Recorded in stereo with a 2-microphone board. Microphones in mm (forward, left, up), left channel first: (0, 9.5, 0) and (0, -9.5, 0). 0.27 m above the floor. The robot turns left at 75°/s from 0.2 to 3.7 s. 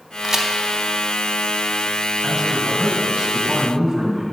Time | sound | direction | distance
0.2 | a crack | 35° right (ahead or behind) | 0.6 m
2.2 | a man speaking | 10° left | 1.3 m